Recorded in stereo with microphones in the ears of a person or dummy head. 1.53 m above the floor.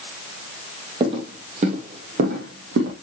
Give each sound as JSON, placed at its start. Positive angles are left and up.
{"t": 1.0, "sound": "footsteps", "side_deg": -30, "distance_m": 3.0}